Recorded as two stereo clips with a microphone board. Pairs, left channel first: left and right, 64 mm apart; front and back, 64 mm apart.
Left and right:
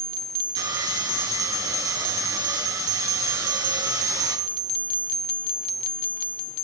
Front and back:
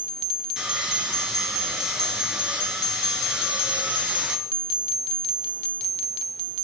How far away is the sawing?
About 3 m.